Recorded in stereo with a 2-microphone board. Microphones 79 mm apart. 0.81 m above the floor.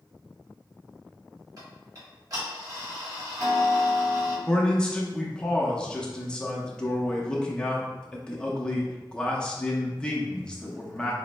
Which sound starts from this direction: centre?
A man speaking, at 4.5 s.